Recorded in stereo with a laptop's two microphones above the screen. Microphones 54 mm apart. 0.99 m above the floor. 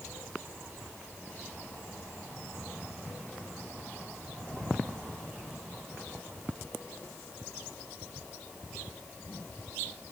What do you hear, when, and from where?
Only background noise.